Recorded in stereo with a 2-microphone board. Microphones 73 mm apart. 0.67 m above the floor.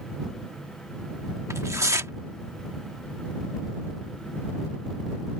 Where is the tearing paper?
45° right (ahead or behind).